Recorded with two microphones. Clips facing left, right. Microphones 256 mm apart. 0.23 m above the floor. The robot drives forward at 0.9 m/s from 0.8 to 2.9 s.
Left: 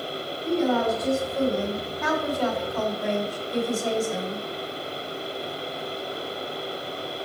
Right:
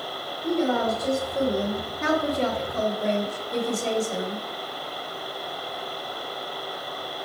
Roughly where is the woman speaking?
Right.